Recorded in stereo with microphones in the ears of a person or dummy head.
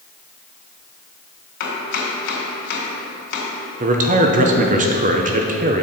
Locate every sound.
1.6 s chopping: 60° left (ahead or behind), 2.5 m
3.8 s a man speaking: 35° right (ahead or behind), 0.7 m